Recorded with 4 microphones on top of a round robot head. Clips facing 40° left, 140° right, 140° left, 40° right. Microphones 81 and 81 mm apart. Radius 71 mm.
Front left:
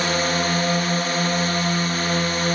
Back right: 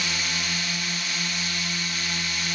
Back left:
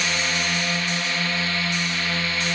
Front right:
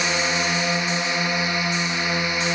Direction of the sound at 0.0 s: 25° left.